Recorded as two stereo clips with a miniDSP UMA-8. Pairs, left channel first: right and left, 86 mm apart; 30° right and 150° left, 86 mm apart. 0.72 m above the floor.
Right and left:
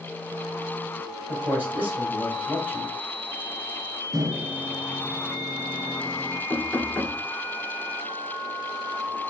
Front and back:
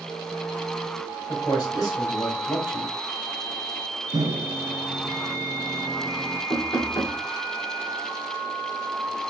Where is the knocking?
5° right, 2.0 m.